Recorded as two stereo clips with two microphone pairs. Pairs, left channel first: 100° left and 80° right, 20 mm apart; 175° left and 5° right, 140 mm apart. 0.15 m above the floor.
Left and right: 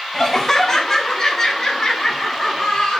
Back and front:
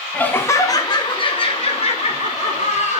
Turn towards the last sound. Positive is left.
turn(degrees=150)